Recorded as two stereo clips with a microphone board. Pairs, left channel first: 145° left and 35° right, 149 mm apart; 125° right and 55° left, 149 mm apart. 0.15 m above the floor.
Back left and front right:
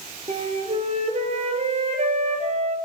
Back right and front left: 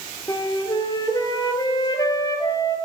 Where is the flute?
65° right, 1.2 m.